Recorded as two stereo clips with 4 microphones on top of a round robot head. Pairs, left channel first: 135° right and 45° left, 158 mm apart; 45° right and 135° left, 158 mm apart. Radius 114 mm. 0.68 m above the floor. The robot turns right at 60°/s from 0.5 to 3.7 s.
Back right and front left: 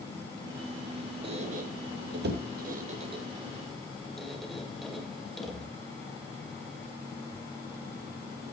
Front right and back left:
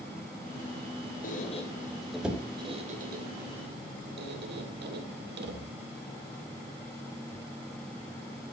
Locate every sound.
1.2 s a squeak: 10° right, 2.5 m; by 5.7 s 135° left, 2.5 m